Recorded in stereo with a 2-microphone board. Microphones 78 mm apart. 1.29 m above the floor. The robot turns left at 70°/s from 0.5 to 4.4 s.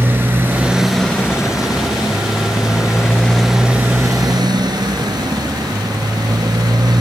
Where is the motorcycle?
150° right; by 7.0 s 65° right.